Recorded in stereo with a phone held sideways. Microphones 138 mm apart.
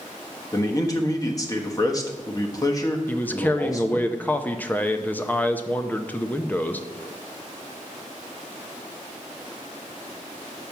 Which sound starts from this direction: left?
A man speaking, at 0.5 s.